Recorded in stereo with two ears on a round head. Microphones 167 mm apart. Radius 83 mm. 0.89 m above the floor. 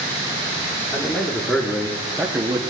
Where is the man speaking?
10° left (ahead or behind), 2.5 m; by 2.6 s 20° right (ahead or behind), 1.3 m.